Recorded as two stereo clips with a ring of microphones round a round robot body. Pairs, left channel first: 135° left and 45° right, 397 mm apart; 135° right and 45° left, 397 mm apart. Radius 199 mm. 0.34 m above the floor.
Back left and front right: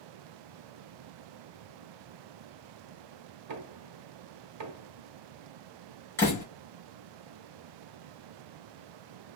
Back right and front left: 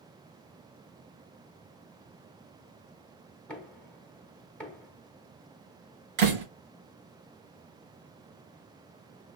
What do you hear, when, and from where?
3.5 s knocking: 50° right, 1.1 m
6.2 s a door slam: 50° left, 4.5 m